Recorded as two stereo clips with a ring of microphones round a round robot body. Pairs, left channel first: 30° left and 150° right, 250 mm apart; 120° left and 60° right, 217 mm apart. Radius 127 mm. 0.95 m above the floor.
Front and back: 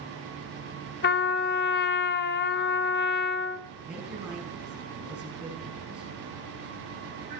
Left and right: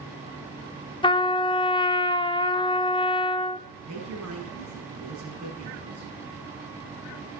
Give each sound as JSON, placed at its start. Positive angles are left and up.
{"t": 1.0, "sound": "a trumpet", "azimuth_deg": 60, "distance_m": 0.7}
{"t": 3.9, "sound": "a woman speaking", "azimuth_deg": -65, "distance_m": 7.5}